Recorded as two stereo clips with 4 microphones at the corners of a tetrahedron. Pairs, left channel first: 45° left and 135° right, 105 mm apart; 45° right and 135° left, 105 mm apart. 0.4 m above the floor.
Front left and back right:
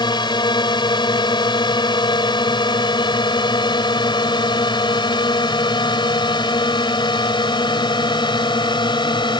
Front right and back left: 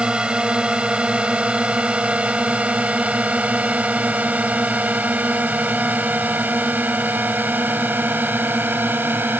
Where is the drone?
60° left; by 9.4 s 70° left.